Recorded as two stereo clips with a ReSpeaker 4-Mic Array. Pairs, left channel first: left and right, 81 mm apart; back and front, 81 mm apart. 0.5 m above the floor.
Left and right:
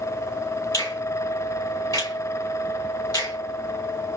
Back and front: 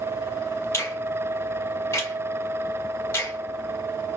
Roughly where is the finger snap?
Behind left.